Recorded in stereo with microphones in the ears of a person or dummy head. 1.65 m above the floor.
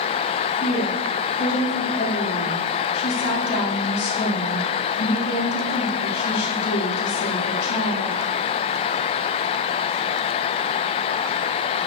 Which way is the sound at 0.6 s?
55° left (ahead or behind).